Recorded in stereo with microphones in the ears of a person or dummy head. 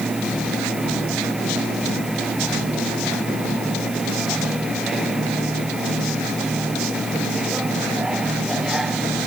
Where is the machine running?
Centre (ahead or behind).